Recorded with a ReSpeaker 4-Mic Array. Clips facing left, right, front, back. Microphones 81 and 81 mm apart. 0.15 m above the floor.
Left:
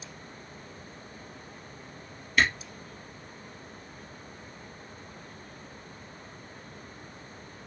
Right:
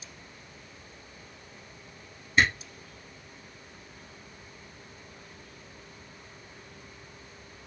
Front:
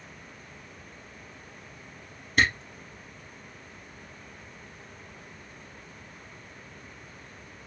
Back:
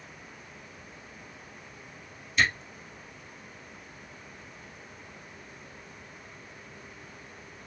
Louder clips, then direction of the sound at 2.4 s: Right 1 dB, front 2 dB; 25° right.